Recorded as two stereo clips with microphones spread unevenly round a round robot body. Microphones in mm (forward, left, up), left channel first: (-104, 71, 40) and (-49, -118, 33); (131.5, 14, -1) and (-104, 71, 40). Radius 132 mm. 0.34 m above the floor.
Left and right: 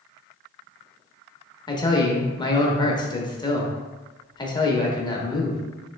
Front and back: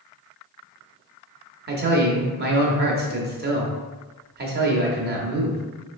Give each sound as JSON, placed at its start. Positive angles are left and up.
{"t": 1.7, "sound": "a man speaking", "azimuth_deg": 155, "distance_m": 0.9}